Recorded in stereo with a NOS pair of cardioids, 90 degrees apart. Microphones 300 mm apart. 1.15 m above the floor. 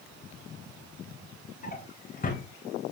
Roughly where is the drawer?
Ahead left.